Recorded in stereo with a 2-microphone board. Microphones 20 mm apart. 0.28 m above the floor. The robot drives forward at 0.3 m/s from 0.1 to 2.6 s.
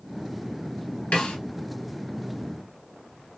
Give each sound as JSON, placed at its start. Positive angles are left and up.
{"t": 1.1, "sound": "a snare drum", "side_deg": 55, "distance_m": 0.8}